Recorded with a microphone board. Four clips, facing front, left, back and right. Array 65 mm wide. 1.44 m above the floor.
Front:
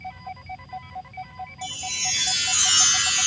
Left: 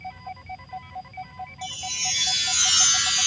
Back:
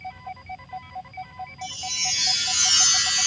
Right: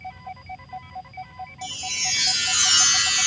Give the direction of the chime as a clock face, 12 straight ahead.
3 o'clock.